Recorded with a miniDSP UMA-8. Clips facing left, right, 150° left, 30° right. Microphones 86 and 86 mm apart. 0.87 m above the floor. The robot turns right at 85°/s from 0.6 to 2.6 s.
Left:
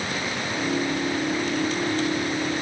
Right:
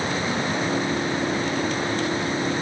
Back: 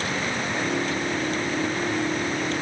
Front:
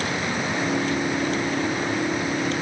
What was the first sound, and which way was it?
Only background noise.